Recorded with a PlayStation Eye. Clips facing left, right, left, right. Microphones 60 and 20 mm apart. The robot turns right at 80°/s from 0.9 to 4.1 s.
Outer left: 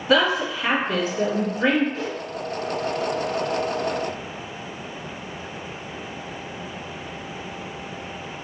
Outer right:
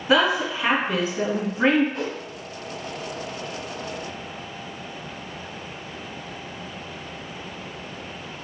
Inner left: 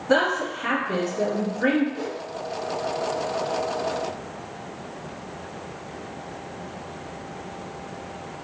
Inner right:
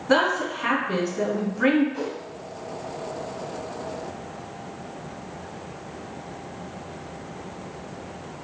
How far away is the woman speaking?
About 1.8 m.